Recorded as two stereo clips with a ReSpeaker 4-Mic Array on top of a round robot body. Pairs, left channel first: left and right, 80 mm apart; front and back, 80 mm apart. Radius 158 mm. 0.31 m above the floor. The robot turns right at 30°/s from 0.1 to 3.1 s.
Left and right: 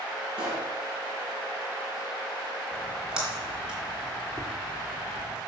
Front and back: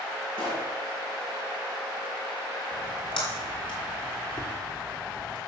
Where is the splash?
25° right, 3.5 m; by 5.4 s 10° right, 3.5 m.